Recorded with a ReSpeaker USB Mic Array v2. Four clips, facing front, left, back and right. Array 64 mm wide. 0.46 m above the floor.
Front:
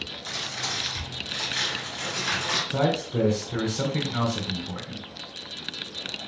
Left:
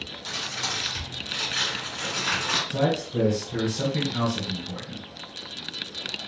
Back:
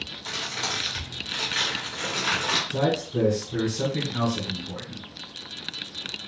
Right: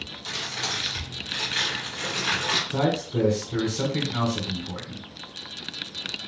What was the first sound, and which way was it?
Crumpling, 165° right.